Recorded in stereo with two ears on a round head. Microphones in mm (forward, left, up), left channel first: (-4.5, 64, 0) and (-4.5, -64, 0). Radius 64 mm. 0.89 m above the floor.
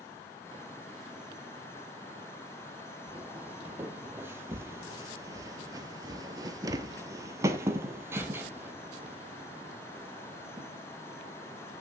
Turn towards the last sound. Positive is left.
turn(degrees=-10)  # may be behind; listen again after turning